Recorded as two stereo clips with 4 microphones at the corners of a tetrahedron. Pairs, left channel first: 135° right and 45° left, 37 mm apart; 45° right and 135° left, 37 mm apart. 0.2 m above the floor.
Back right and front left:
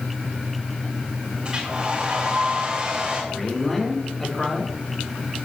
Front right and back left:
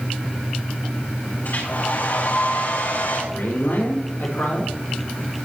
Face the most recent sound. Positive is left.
turn(degrees=-50)